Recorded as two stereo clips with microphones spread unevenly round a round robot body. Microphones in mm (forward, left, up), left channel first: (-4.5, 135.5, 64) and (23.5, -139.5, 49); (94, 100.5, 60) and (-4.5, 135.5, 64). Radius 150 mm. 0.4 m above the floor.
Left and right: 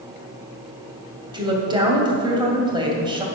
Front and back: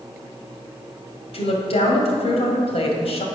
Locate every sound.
1.3 s a woman speaking: 10° right, 2 m